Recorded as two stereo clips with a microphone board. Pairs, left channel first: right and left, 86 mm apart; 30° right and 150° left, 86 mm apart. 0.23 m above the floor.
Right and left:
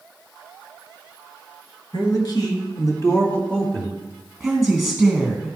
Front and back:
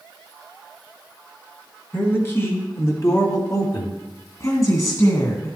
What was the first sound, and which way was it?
A man speaking, 90° right.